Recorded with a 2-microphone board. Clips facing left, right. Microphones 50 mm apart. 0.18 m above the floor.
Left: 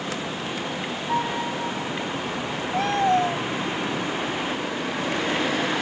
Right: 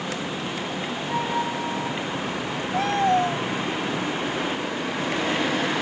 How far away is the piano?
About 1.1 m.